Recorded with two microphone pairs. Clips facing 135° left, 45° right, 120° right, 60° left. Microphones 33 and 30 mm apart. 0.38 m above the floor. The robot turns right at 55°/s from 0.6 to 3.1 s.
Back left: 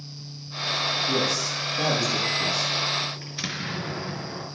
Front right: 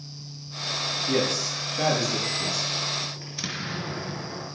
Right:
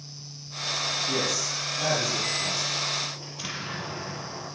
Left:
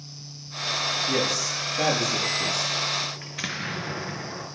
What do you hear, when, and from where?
1.1 s a man speaking: 20° right, 9.5 m; by 2.7 s 75° left, 9.5 m
3.2 s an explosion: 60° left, 4.5 m